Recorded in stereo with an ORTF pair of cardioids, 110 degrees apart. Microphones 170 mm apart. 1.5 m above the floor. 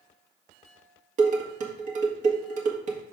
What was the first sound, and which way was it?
Dishes clattering, 50° right.